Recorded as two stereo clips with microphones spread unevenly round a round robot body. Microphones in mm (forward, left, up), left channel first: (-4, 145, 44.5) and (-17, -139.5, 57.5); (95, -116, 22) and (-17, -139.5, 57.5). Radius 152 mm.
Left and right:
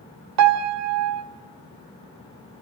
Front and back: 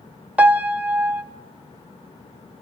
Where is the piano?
80° right, 1.1 m.